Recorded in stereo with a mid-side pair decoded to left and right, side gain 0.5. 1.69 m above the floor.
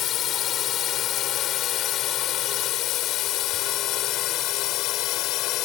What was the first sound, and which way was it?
A drone, 60° left.